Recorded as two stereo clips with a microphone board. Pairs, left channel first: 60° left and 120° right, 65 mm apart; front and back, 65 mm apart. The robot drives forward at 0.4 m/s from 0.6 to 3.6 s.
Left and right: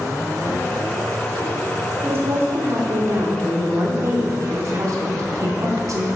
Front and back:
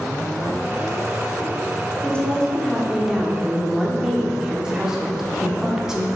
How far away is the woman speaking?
About 1.4 m.